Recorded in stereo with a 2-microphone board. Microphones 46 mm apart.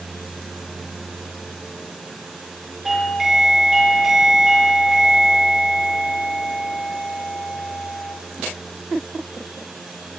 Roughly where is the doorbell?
Centre.